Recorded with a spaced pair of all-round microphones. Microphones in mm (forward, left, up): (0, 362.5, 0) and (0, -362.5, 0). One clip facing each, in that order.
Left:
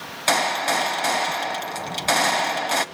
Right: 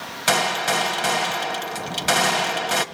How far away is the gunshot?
About 1.5 m.